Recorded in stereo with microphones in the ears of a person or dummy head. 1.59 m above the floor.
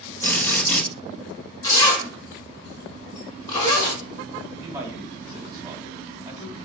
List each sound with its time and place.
0.2 s a drill: 10° left (ahead or behind), 3.5 m
1.6 s a zipper: 20° left (ahead or behind), 3.5 m
4.6 s a man speaking: 20° right (ahead or behind), 3 m